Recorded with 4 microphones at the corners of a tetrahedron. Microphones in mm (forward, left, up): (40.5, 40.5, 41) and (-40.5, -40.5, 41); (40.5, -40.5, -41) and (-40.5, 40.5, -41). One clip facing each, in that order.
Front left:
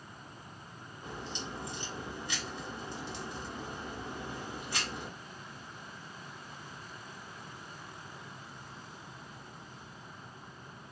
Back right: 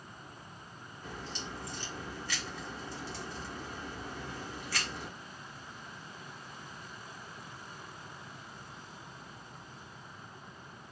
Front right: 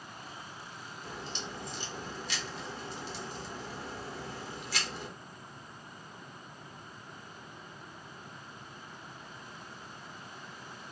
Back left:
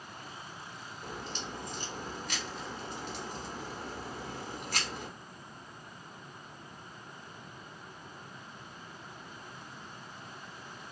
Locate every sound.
1.0 s a crack: 110° left, 0.9 m